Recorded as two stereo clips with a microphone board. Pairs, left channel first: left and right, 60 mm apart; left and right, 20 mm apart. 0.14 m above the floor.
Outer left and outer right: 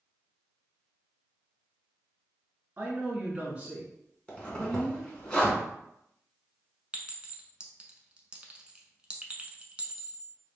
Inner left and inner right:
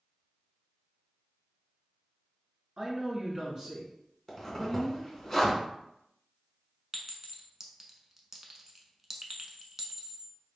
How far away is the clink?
About 0.7 m.